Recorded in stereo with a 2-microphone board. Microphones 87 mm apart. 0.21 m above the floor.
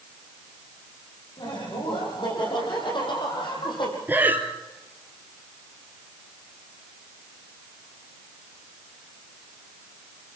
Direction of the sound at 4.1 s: 20° right (ahead or behind).